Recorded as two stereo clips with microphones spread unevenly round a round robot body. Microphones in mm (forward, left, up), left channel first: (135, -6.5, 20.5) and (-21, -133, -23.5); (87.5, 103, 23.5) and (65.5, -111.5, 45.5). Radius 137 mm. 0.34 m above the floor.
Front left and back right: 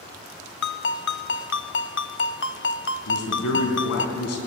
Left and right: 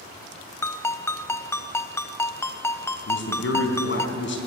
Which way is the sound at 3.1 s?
60° left.